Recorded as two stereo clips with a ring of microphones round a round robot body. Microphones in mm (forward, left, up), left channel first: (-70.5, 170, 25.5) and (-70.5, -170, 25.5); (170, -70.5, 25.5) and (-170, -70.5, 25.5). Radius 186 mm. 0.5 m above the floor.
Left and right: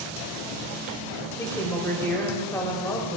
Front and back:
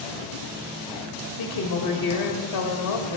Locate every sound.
1.4 s a woman speaking: 10° left, 2.5 m